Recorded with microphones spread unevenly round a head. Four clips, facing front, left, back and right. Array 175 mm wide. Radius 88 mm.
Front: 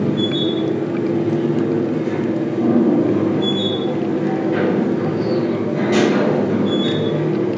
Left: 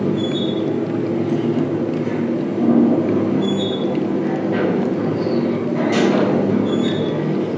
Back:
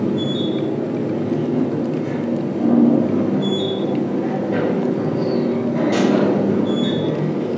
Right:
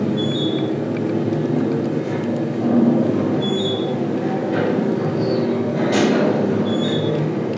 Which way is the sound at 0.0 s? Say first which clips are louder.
Left 1 dB, front 2 dB; 140° left.